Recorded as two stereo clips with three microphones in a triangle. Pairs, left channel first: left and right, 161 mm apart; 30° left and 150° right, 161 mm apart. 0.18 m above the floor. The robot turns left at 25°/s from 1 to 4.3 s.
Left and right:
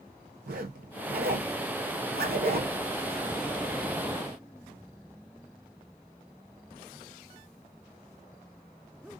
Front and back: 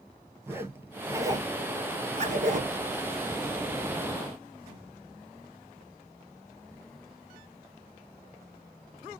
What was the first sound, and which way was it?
A zipper, 75° right.